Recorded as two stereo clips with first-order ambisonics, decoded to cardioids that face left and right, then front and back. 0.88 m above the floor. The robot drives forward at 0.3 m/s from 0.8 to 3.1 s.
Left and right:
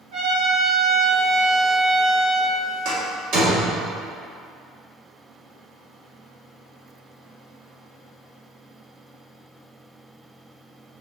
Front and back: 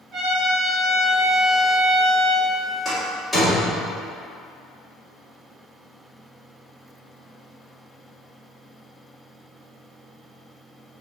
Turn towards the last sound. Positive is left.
turn(degrees=-100)